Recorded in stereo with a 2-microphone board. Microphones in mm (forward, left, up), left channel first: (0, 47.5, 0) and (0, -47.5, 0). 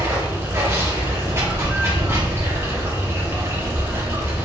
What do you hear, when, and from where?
0.0 s running water: 25° right (ahead or behind), 1.0 m